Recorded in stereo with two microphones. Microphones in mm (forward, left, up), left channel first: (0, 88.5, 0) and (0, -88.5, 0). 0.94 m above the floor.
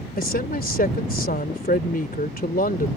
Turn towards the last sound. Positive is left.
turn(degrees=50)  # may be behind; listen again after turning